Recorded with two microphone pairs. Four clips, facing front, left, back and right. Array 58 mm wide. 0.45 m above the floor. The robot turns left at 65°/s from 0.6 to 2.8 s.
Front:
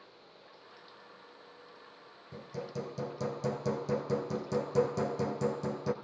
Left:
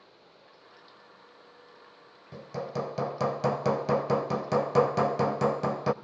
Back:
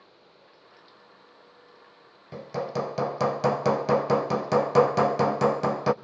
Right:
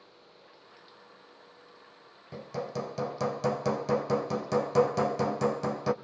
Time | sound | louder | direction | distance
2.3 | hammering | left 1 dB, back 10 dB | 160° right | 1.0 m